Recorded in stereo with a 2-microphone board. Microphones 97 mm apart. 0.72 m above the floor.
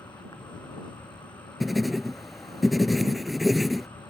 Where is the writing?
Centre (ahead or behind).